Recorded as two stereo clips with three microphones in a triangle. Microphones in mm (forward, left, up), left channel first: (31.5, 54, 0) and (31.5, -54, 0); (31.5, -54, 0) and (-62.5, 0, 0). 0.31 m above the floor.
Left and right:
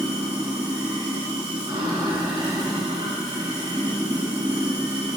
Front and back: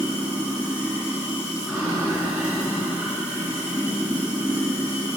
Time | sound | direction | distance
0.0 | running water | 130° right | 2.5 m